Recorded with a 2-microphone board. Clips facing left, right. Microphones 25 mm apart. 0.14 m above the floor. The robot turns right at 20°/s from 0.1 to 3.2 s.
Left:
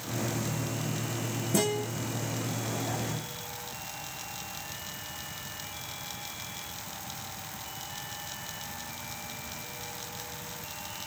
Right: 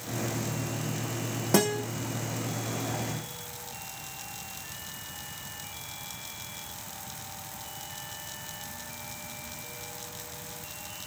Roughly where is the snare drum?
No snare drum in this recording.